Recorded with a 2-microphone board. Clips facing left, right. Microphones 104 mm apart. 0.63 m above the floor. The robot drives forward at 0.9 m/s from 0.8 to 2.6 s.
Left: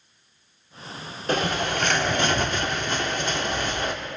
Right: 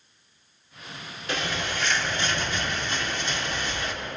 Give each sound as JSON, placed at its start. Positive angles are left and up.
{"t": 1.3, "sound": "a bird", "side_deg": 45, "distance_m": 1.2}